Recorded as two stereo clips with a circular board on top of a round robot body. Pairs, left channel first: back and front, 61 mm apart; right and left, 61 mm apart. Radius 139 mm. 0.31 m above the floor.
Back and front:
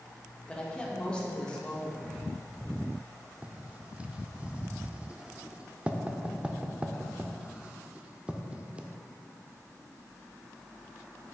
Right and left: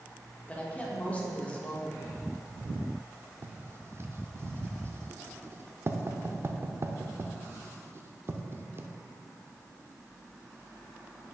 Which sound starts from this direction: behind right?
A woman speaking, at 0.5 s.